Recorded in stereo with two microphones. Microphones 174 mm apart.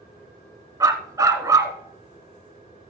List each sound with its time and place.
0.8 s a dog barking: 20° right (ahead or behind), 1.0 m